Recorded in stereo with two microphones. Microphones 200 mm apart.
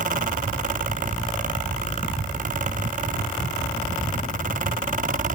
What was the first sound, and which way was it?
Only background noise.